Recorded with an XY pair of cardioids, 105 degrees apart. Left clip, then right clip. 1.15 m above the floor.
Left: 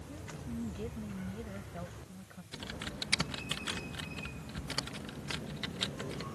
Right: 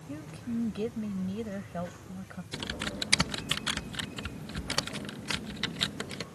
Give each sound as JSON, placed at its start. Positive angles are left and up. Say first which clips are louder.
{"t": 0.1, "sound": "a woman speaking", "louder": "right 7 dB", "azimuth_deg": -55}
{"t": 2.5, "sound": "typing on a keyboard", "louder": "right 6 dB", "azimuth_deg": -45}